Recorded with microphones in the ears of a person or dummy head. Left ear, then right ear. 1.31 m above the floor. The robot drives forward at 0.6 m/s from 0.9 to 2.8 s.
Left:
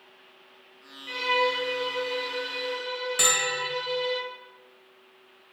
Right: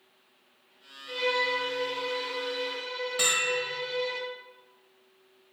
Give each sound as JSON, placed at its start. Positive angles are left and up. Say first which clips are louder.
{"t": 1.1, "sound": "a violin", "louder": "left 3 dB", "side_deg": 55, "distance_m": 0.8}
{"t": 3.2, "sound": "a bell", "louder": "left 2 dB", "side_deg": 15, "distance_m": 0.6}